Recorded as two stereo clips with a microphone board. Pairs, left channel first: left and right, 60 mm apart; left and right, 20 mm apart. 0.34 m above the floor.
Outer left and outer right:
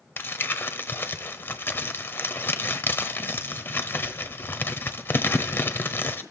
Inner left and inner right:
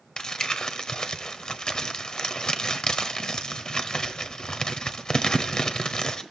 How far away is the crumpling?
About 1.0 m.